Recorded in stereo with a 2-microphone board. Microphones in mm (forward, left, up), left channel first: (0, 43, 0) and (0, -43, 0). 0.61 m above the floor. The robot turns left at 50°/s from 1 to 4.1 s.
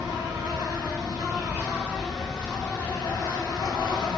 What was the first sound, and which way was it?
An insect, 120° right.